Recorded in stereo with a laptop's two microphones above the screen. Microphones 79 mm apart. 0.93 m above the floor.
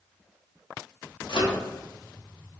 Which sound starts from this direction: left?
A microwave, at 1.3 s.